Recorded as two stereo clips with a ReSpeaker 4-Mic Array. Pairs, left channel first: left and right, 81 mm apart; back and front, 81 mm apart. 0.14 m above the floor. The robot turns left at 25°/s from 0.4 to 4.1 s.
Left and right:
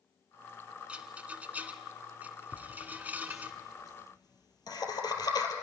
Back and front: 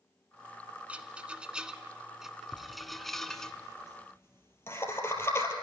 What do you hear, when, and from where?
0.9 s a rattle: 45° right, 0.9 m; by 3.5 s 110° right, 0.9 m
2.5 s laughter: 160° left, 3 m; by 5.5 s 120° left, 3 m